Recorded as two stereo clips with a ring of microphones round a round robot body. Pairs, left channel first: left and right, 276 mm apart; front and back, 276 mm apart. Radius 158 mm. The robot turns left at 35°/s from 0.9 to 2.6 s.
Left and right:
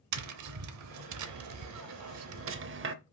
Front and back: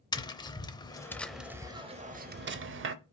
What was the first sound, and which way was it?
Tapping, 75° right.